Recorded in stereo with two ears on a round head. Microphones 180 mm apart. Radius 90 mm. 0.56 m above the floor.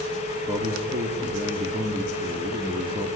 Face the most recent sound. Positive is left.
turn(degrees=-25)  # may be behind; listen again after turning